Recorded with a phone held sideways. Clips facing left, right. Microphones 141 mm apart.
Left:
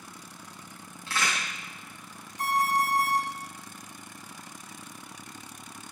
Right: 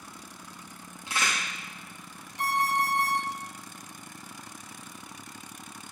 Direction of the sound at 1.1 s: 20° right (ahead or behind).